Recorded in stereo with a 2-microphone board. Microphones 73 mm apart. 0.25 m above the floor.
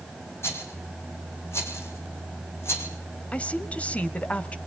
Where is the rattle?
35° left (ahead or behind), 4 m.